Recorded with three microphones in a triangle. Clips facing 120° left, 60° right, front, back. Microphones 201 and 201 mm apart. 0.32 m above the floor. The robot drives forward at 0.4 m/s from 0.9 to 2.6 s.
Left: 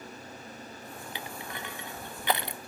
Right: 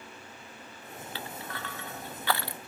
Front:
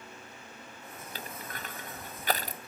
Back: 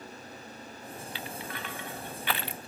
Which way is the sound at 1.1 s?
45° left.